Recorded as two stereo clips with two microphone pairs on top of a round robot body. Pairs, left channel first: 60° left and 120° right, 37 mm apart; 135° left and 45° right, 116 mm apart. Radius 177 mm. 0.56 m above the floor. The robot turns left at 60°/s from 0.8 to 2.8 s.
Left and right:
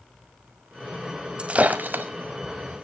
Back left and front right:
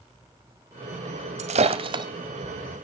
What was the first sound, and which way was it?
Breaking glass, 60° right.